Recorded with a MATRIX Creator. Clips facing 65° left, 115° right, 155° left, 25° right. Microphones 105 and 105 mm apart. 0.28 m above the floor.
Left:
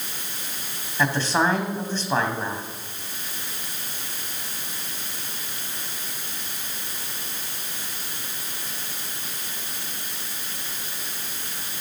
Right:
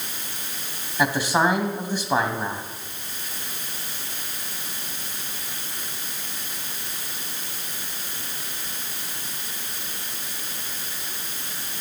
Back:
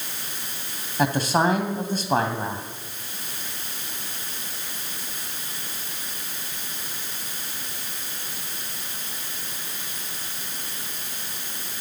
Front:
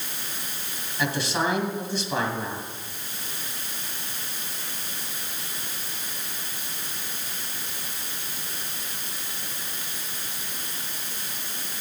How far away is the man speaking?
About 2 m.